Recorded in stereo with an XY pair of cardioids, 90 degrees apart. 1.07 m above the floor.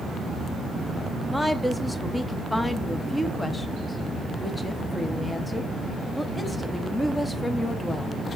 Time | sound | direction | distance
1.3 | a woman speaking | 15° left | 0.8 m